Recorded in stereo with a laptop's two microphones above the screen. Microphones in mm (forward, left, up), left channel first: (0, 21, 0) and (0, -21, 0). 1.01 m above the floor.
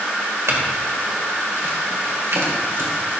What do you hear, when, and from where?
0.5 s a clink: 80° right, 1.9 m